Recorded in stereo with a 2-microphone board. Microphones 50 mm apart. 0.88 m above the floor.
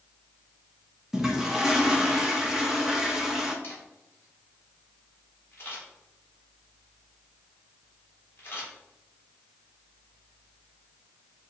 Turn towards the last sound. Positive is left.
turn(degrees=45)  # may be behind; listen again after turning